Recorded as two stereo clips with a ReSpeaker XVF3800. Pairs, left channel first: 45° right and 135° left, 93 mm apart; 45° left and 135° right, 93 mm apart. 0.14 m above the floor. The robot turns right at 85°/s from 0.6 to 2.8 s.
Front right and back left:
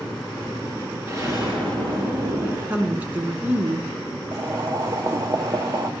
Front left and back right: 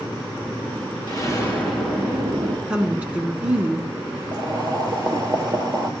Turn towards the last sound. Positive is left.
turn(degrees=-175)